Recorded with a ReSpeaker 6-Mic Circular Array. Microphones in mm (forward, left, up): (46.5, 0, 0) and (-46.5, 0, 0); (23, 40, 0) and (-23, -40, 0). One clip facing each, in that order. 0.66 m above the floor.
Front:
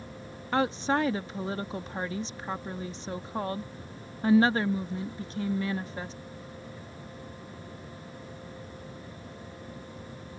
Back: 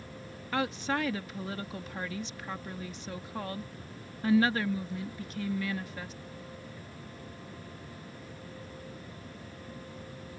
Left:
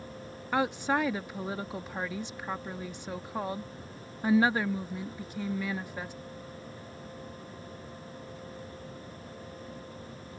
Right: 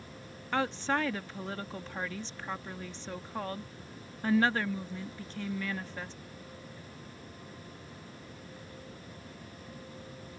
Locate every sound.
0.5 s a woman speaking: 5° right